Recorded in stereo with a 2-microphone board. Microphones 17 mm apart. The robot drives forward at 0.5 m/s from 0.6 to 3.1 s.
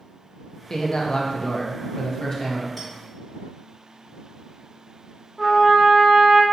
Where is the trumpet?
Centre (ahead or behind), 0.6 m.